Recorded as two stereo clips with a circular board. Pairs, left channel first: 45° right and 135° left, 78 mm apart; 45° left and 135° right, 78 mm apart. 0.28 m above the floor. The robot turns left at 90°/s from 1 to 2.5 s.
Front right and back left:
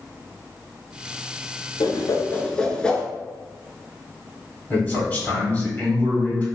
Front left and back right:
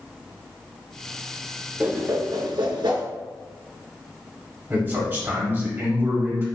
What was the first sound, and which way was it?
A whoosh, 60° right.